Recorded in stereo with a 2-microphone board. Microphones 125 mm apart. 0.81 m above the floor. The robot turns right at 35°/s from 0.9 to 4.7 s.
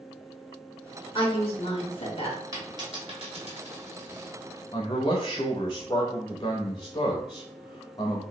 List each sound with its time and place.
1.1 s a woman speaking: 70° left, 0.9 m; by 2.4 s 110° left, 0.9 m
2.5 s a dropped coin: 25° right (ahead or behind), 1.2 m; by 4.3 s 75° right (ahead or behind), 1.2 m
4.7 s a man speaking: 35° left (ahead or behind), 0.6 m